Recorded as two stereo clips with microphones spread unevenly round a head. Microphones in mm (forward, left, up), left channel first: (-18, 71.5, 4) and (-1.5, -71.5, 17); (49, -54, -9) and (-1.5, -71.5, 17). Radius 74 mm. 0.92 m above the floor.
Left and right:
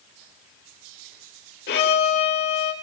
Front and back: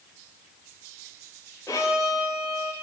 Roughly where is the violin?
Left.